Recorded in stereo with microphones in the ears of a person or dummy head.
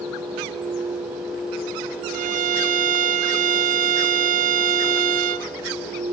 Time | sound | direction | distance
2.1 | a violin | 45° right (ahead or behind) | 1.0 m